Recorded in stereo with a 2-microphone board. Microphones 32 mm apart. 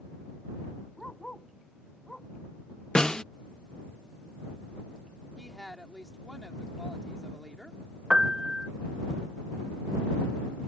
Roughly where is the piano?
Centre.